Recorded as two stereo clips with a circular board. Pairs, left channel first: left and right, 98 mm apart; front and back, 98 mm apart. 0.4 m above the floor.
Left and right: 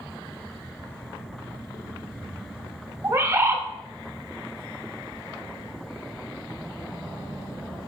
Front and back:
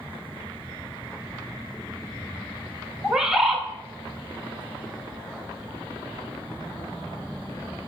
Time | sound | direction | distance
3.0 | a bird | 105° right | 0.8 m